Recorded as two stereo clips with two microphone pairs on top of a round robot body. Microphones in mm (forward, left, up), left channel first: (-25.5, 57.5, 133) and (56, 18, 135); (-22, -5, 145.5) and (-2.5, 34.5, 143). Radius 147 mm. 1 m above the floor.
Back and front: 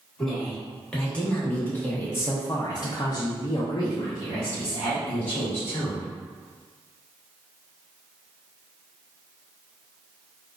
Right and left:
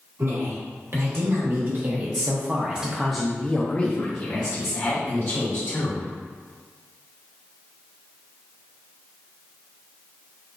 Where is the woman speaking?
70° left, 1.6 m; by 6.1 s 145° right, 1.7 m.